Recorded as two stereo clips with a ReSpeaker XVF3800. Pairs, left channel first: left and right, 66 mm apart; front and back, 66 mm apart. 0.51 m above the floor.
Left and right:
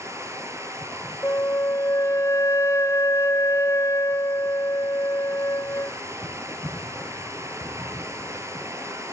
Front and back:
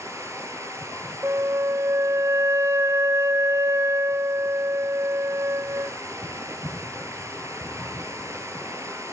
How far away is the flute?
About 0.6 m.